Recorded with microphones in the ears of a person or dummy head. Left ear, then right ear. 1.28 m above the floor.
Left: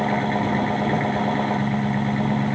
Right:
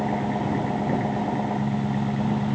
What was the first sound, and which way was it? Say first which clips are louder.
An engine running: left 4 dB; 40° left (ahead or behind).